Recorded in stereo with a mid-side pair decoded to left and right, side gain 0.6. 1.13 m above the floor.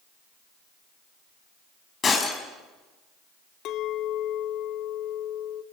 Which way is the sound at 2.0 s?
35° left.